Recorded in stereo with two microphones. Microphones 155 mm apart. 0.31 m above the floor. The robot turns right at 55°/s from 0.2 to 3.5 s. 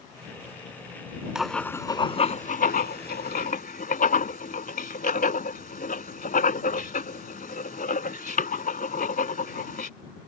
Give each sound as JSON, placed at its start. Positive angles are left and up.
{"t": 1.4, "sound": "writing", "side_deg": -5}